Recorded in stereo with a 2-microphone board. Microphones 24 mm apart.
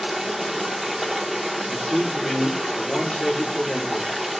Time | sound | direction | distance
0.0 | running water | 5° right (ahead or behind) | 0.8 m
1.7 | a man speaking | 65° left (ahead or behind) | 1.9 m